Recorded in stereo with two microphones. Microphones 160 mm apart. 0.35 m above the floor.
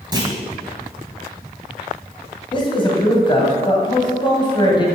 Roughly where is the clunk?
Right.